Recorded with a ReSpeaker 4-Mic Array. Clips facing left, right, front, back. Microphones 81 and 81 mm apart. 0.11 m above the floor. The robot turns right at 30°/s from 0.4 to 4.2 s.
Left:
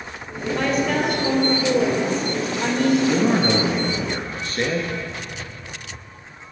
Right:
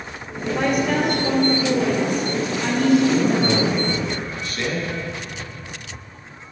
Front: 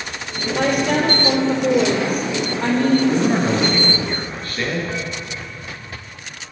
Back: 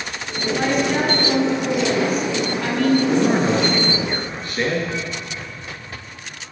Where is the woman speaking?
15° right, 2 m; by 3.0 s 60° left, 2 m.